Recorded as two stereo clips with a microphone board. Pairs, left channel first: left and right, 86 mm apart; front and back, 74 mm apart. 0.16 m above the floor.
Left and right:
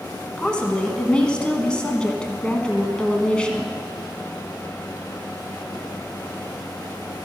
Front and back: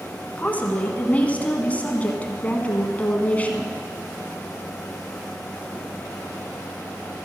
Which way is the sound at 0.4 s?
30° left.